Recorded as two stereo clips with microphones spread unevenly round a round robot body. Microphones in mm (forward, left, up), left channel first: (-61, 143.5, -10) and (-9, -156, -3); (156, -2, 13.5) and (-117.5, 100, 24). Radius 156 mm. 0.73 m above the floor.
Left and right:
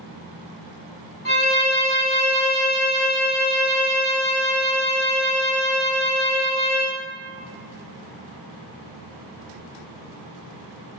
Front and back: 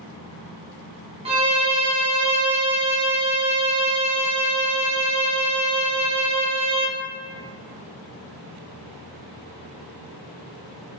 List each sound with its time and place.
1.2 s a violin: 105° left, 0.7 m